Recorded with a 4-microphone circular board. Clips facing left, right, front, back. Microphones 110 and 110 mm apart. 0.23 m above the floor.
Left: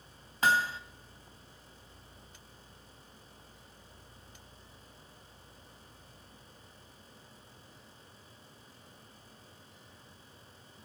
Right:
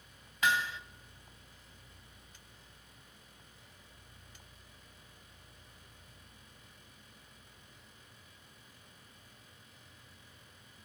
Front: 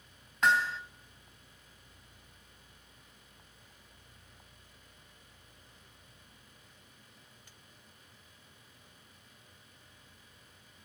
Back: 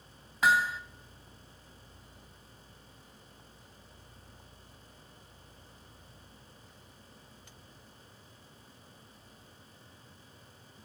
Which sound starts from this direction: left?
Hammering, at 0.4 s.